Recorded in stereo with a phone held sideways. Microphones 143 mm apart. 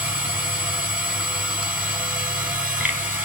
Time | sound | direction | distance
0.0 | a machine running | 10° right (ahead or behind) | 1.4 m